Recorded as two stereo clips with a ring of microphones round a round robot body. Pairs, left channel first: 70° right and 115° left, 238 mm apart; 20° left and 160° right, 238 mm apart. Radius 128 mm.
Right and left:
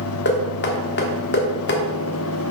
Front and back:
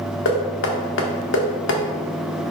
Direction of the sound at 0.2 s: 20° right.